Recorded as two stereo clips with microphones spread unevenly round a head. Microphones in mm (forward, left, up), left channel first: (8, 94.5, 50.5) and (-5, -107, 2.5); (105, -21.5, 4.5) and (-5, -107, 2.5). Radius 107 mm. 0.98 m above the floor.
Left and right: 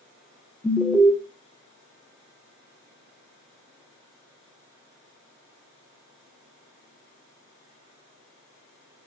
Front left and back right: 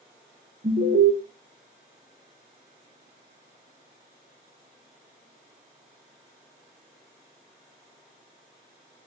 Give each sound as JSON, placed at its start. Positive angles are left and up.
{"t": 0.6, "sound": "an alarm", "azimuth_deg": 180, "distance_m": 0.6}